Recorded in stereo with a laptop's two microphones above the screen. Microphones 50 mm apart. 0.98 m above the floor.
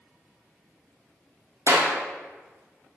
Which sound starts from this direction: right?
A clap, at 1.7 s.